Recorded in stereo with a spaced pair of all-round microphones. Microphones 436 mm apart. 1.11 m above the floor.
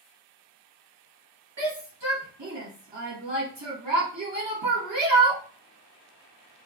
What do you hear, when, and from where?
1.6 s a shout: 70° right (ahead or behind), 1.2 m